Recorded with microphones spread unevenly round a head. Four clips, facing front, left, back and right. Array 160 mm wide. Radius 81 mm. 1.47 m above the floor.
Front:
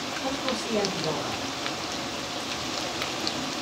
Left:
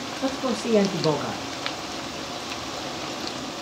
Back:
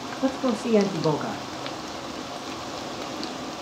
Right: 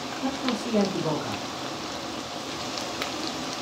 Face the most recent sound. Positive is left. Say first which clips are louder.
# left 3 dB, back 7 dB
turn(degrees=130)